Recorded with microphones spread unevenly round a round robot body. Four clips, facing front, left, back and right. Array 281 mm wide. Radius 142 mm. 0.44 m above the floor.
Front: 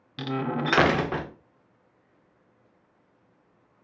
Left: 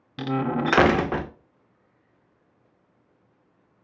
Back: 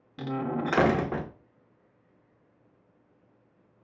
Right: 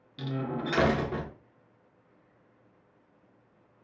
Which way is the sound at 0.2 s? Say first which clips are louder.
Left 8 dB, front 2 dB; 75° left.